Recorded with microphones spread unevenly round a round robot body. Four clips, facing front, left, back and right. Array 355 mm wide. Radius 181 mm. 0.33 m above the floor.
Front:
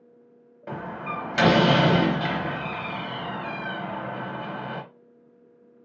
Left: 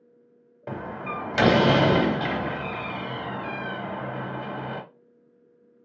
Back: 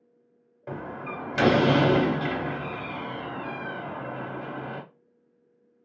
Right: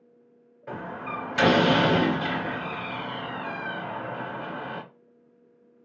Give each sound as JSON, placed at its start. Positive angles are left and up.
{"t": 0.7, "sound": "a door slam", "azimuth_deg": 80, "distance_m": 1.4}